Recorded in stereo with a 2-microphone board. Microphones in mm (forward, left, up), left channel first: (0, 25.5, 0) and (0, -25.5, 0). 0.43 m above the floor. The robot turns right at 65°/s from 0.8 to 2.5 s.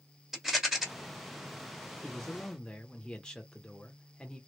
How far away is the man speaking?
About 0.9 m.